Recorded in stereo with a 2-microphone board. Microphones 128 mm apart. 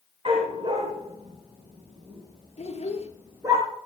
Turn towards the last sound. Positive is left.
turn(degrees=55)  # may be behind; listen again after turning